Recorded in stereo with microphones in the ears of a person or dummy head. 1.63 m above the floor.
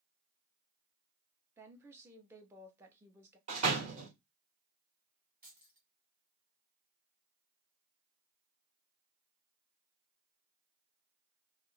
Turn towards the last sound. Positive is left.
turn(degrees=-15)  # may be behind; listen again after turning